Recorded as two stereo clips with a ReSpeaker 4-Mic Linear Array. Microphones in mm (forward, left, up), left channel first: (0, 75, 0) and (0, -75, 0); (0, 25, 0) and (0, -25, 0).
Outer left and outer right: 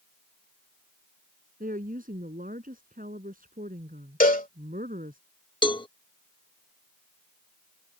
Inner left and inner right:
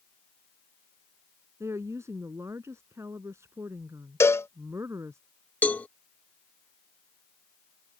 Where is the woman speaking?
70° right (ahead or behind).